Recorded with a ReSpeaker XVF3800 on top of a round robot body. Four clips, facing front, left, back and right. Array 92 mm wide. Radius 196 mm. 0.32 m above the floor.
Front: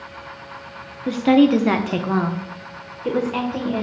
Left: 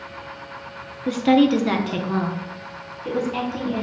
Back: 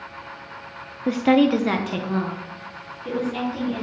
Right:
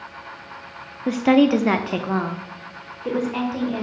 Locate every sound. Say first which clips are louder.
1.1 s a woman speaking: right 1 dB, front 3 dB; 140° right, 0.8 m; by 3.9 s 25° right, 1.9 m